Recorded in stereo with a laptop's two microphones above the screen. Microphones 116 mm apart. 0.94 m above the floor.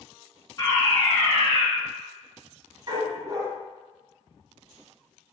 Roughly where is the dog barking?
Right.